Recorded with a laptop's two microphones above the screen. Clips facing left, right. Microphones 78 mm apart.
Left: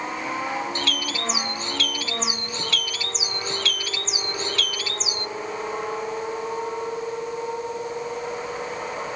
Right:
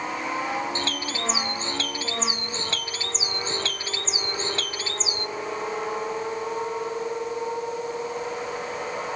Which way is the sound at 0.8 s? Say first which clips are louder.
Left 1 dB; 30° right (ahead or behind).